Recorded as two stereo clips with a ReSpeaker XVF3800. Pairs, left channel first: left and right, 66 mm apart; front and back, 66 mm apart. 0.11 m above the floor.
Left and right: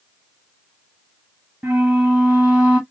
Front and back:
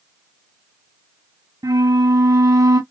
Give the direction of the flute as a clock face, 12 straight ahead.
5 o'clock.